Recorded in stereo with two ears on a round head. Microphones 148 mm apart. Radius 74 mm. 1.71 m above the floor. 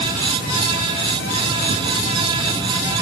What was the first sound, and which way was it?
Only background noise.